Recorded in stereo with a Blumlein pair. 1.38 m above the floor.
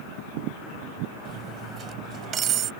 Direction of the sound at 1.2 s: 25° right.